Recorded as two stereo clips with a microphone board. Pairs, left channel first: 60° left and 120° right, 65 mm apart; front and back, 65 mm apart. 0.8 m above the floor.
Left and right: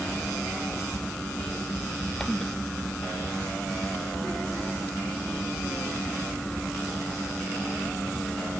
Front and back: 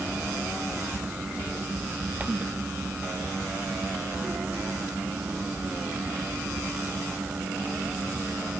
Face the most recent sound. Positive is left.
No sound to turn to.